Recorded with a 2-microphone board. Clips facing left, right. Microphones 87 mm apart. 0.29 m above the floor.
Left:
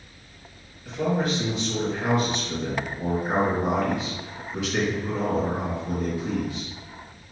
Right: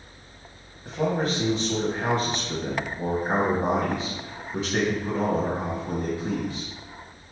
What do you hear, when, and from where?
0.8 s a man speaking: 35° right (ahead or behind), 1.5 m